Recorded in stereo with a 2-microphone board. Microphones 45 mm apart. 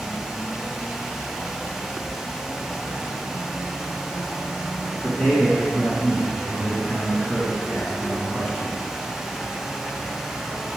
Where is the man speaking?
20° left (ahead or behind), 2.5 m.